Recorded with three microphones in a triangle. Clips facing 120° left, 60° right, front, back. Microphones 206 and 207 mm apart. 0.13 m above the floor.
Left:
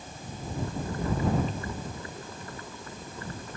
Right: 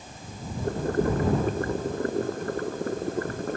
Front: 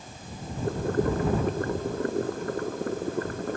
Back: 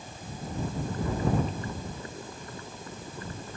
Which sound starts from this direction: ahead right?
Boiling, at 0.6 s.